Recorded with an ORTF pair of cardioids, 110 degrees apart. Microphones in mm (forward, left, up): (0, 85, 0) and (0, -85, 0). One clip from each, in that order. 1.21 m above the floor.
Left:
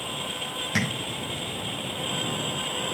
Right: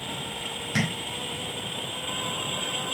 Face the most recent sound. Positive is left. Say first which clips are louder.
# left 1 dB
turn(degrees=15)